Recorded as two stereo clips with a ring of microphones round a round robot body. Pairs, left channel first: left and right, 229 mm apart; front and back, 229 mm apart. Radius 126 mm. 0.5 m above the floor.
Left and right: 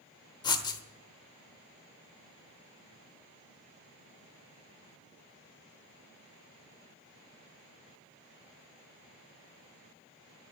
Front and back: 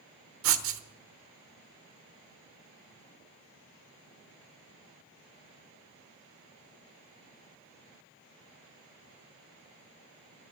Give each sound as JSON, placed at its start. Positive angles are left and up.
{"t": 0.4, "sound": "writing", "azimuth_deg": 160, "distance_m": 1.0}